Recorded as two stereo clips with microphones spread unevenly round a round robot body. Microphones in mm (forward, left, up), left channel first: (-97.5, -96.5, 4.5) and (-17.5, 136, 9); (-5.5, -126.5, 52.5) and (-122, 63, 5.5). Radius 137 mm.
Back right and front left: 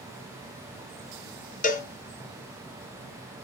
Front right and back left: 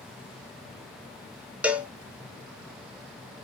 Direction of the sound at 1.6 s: 165° right.